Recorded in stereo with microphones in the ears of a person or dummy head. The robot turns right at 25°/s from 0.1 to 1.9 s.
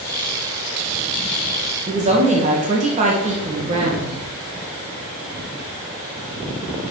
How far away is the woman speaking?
About 1.5 m.